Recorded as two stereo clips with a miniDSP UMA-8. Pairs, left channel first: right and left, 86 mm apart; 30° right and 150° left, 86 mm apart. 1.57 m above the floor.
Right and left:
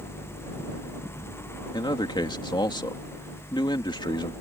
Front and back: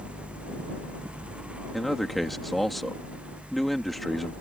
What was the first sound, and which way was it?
A man speaking, 120° right.